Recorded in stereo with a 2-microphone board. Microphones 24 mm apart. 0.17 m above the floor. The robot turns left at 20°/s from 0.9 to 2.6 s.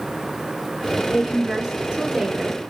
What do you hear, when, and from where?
1.1 s a woman speaking: 30° right (ahead or behind), 2 m; by 2.7 s 40° right (ahead or behind), 2 m